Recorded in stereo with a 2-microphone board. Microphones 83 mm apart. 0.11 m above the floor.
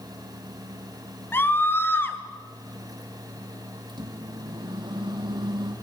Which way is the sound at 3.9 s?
70° right (ahead or behind).